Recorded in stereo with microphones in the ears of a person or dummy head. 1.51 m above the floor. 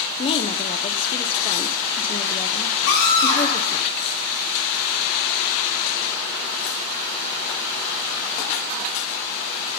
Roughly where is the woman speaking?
Left.